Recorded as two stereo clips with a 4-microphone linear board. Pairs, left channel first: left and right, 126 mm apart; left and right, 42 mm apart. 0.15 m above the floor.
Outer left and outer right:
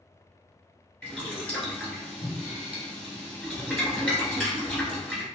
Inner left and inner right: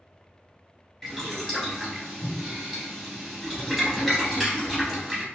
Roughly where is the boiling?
Centre.